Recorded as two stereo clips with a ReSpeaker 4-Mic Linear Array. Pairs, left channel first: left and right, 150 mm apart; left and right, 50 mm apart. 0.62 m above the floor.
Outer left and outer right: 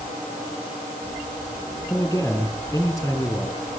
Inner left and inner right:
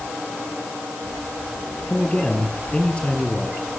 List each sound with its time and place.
1.9 s a man speaking: 20° left (ahead or behind), 6.5 m